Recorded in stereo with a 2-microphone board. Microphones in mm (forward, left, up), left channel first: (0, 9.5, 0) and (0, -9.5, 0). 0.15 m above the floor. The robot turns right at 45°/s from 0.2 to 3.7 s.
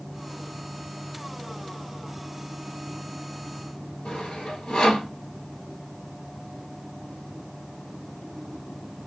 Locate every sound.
4.0 s sawing: 65° left (ahead or behind), 1.4 m